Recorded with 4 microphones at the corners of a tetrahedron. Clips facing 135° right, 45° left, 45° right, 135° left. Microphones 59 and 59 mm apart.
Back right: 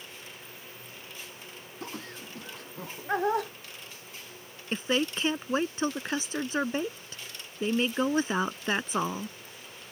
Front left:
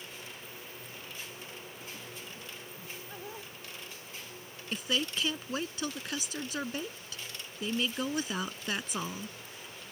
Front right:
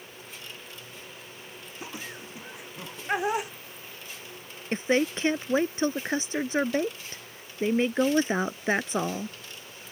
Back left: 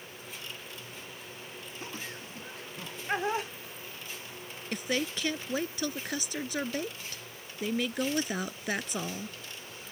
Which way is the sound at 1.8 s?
120° right.